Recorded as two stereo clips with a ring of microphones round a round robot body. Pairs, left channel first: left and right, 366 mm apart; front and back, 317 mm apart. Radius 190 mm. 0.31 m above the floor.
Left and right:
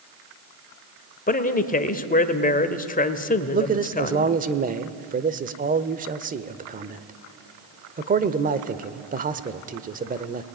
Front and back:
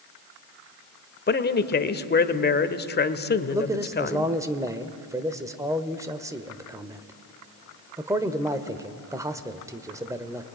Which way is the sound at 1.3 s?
35° left.